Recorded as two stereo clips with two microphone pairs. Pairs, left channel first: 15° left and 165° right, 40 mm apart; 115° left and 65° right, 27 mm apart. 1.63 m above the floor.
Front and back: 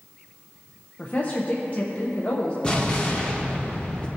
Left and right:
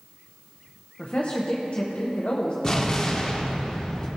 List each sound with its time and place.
1.0 s a woman speaking: 70° left, 1.0 m
2.6 s an explosion: 65° left, 1.4 m